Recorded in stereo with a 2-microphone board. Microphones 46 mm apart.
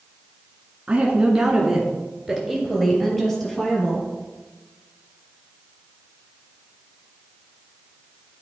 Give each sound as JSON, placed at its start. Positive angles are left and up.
{"t": 0.9, "sound": "a woman speaking", "side_deg": -20, "distance_m": 1.4}